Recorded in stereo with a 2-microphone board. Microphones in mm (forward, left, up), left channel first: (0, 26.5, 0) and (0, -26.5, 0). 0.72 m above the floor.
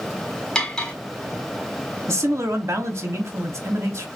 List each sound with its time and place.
0.6 s cutlery clinking: 15° left (ahead or behind), 1.4 m
2.1 s a man speaking: 50° right (ahead or behind), 1.1 m